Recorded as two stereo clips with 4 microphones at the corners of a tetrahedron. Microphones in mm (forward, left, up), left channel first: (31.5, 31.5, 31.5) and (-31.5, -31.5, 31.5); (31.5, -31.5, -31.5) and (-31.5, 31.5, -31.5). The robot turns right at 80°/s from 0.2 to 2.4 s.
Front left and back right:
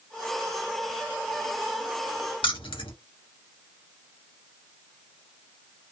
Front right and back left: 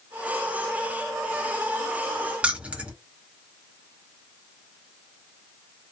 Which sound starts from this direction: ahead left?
Keys jangling, at 2.4 s.